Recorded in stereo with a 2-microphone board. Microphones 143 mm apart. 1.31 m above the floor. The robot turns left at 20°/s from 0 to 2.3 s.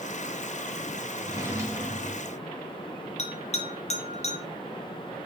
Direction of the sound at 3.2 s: 50° left (ahead or behind).